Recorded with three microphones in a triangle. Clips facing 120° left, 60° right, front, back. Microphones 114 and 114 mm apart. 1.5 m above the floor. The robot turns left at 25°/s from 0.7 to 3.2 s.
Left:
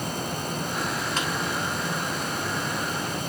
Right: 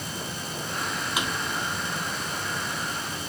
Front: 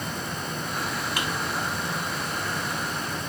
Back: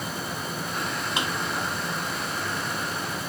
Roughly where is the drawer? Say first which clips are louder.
Right 2 dB, back 3 dB; behind right.